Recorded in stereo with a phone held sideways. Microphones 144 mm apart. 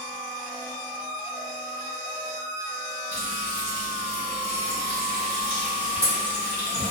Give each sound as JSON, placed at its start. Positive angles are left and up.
{"t": 3.1, "sound": "frying", "side_deg": 80, "distance_m": 1.8}